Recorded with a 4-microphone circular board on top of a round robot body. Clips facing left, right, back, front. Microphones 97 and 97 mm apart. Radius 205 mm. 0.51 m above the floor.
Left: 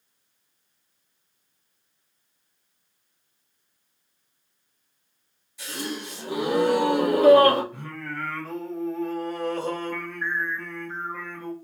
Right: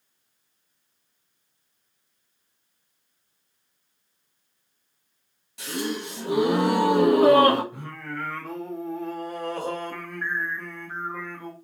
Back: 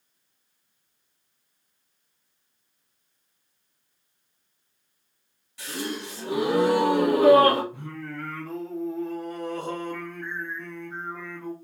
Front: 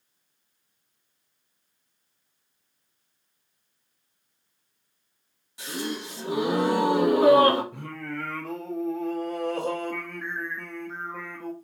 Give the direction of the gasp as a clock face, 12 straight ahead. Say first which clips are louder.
Right 4 dB, even; 2 o'clock.